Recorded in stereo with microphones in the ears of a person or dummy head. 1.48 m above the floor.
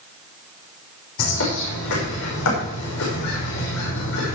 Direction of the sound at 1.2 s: 75° left (ahead or behind).